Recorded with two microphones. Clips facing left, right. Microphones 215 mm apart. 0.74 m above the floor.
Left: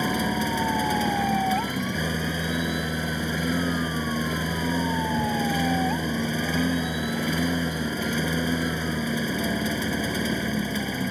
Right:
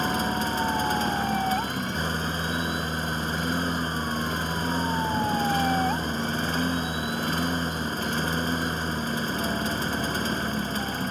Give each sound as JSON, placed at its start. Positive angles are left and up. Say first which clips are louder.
{"t": 0.0, "sound": "a lawn mower", "louder": "left 2 dB", "side_deg": 10}